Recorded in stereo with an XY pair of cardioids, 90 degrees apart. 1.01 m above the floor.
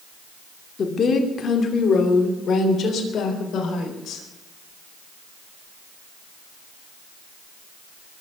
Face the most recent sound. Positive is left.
turn(degrees=75)